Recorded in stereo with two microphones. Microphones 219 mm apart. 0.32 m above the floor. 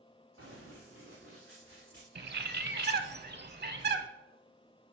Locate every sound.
0.4 s running footsteps: 70° right (ahead or behind), 2.5 m; by 2.0 s 45° right (ahead or behind), 1.3 m
2.1 s a bird: 50° right (ahead or behind), 0.6 m